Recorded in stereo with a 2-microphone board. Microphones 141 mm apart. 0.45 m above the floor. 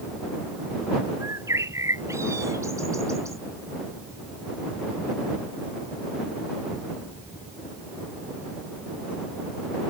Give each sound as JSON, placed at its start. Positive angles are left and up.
{"t": 1.2, "sound": "a bird", "side_deg": -20}